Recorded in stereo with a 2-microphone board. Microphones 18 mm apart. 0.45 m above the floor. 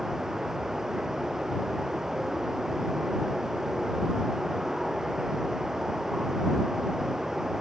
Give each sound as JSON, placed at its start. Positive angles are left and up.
{"t": 0.0, "sound": "running water", "side_deg": -30}